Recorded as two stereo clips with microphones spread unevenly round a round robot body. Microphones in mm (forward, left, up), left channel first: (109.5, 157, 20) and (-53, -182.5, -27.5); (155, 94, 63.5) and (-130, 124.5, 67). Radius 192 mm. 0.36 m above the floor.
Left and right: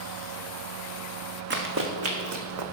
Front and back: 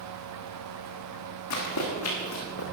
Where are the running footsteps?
50° right, 1.7 m; by 2.6 s 70° right, 1.4 m.